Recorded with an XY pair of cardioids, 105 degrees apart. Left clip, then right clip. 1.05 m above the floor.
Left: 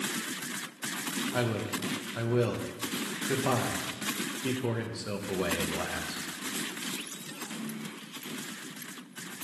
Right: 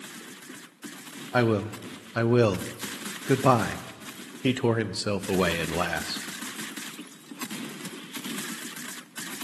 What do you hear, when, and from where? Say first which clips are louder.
1.3 s a man speaking: right 10 dB; 65° right, 0.5 m